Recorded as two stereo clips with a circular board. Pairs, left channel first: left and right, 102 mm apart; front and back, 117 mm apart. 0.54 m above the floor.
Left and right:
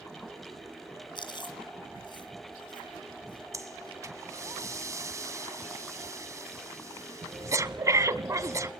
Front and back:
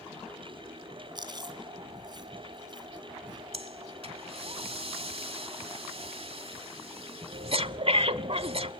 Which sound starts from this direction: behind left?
Chewing, at 1.1 s.